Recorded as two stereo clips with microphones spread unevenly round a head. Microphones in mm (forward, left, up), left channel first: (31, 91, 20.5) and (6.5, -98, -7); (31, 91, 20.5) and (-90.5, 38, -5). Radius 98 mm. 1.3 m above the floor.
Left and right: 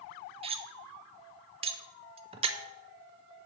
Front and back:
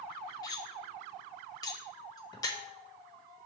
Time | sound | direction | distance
0.4 | cutlery clinking | 35° right | 0.6 m